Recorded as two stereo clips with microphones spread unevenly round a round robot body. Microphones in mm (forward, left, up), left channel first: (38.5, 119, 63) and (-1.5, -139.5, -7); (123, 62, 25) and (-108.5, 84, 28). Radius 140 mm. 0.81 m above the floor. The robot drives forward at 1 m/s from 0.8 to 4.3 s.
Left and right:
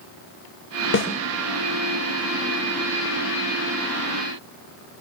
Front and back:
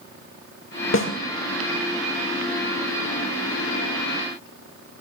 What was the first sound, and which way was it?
A snare drum, 30° left.